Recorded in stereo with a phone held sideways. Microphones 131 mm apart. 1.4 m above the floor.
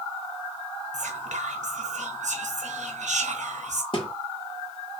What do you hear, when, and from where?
0.9 s whispering: 75° right (ahead or behind), 0.6 m
3.9 s a thud: 45° left (ahead or behind), 1.2 m